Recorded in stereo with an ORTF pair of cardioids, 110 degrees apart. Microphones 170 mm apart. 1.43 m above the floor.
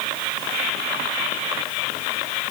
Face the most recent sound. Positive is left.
No sound to turn to.